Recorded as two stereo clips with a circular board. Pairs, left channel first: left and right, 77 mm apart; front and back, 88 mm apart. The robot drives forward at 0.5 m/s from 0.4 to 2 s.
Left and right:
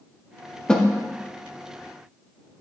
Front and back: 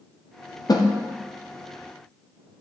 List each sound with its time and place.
0.7 s a snare drum: 15° left, 0.6 m; by 0.9 s 20° left, 0.6 m